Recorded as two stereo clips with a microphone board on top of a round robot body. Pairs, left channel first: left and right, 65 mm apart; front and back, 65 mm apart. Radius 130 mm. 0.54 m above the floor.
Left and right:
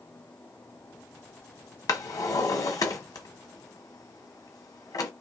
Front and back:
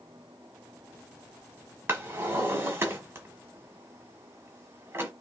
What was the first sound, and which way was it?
A drawer, 120° left.